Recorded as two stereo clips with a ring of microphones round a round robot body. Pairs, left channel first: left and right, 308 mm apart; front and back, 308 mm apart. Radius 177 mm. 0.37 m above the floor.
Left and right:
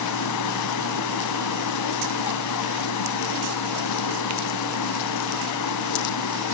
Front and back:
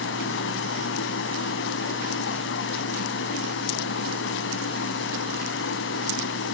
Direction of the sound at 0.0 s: 55° left.